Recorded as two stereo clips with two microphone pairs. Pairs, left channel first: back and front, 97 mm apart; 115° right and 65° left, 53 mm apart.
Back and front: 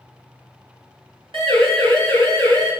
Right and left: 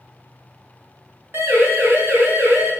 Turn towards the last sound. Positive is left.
turn(degrees=30)